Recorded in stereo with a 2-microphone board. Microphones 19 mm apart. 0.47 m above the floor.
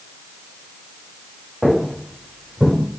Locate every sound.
1.6 s footsteps: 5° right (ahead or behind), 3.5 m; by 2.8 s 15° right (ahead or behind), 3.5 m